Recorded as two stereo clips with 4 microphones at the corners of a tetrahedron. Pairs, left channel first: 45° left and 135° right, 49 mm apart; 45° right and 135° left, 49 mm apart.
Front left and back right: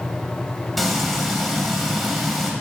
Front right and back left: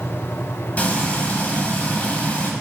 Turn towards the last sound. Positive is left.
turn(degrees=-40)